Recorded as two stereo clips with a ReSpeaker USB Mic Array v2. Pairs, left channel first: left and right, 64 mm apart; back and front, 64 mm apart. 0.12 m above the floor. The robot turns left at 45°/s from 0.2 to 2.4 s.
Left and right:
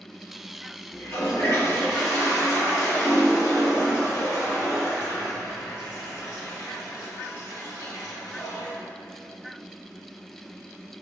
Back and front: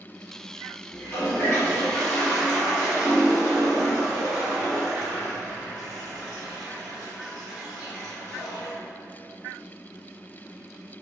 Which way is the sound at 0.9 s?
145° left.